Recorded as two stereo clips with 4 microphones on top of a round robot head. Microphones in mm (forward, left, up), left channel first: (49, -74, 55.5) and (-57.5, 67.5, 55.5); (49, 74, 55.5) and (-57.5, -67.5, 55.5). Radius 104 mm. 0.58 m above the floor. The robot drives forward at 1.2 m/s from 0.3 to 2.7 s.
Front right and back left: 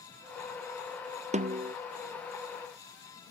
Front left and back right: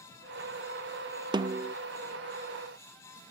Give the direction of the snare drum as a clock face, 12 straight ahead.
6 o'clock.